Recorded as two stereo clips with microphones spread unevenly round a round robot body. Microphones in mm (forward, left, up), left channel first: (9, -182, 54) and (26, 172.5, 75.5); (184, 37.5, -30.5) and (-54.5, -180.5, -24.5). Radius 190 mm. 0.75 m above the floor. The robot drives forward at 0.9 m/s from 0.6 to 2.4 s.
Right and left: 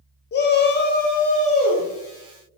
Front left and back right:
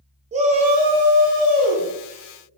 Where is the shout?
90° right, 0.6 m; by 1.9 s 165° right, 1.3 m.